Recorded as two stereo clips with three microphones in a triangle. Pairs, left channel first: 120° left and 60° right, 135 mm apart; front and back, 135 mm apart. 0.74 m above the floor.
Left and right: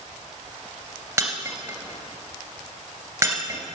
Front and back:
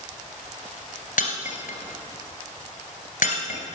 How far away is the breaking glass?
About 2 m.